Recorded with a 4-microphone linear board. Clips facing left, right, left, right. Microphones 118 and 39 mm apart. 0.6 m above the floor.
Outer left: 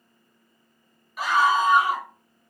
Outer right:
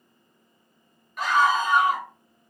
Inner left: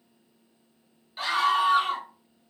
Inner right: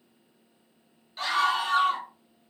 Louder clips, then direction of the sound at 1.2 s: Outer left 1 dB, inner left 2 dB; 5° left (ahead or behind).